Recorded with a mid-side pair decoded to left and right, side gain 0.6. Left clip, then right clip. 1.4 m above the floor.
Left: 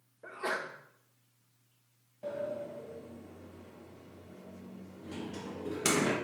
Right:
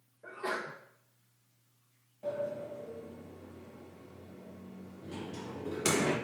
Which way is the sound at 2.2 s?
15° left.